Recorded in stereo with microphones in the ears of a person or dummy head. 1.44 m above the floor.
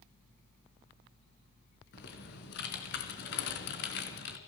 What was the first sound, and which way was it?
Typing on a keyboard, 65° left (ahead or behind).